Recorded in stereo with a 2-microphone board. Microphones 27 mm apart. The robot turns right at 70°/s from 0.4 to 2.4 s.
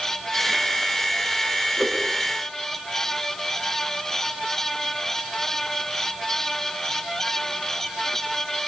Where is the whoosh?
15° right (ahead or behind), 8 m; by 2.0 s 30° right (ahead or behind), 8 m.